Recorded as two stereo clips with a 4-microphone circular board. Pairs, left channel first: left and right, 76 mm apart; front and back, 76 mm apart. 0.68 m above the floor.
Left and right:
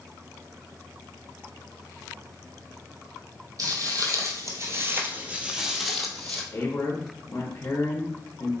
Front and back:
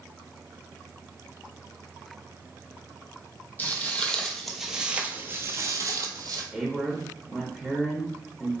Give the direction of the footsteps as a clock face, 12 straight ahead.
2 o'clock.